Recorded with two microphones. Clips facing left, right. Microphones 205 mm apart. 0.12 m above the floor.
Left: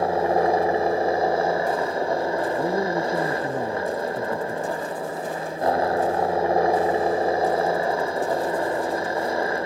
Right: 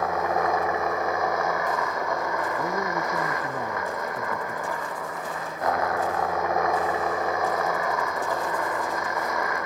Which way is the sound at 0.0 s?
30° left (ahead or behind).